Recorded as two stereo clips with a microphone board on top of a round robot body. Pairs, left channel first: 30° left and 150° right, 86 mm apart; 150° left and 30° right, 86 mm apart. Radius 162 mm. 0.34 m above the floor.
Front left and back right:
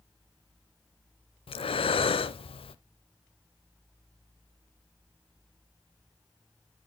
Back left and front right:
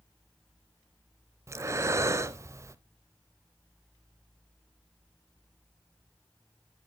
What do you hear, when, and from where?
1.5 s breathing: 25° left, 0.6 m